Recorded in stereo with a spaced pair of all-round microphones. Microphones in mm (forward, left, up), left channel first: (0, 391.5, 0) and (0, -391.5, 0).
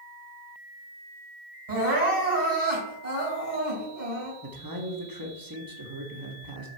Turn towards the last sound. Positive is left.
turn(degrees=-25)  # may be behind; listen again after turning